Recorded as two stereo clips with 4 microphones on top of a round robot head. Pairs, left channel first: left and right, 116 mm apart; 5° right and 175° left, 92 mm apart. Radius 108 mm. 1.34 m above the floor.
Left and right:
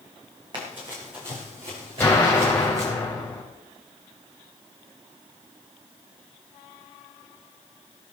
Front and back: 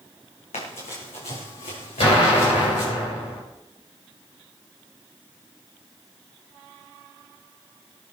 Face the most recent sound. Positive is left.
turn(degrees=15)